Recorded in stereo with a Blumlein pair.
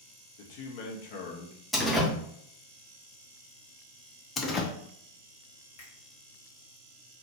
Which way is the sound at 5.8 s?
55° left.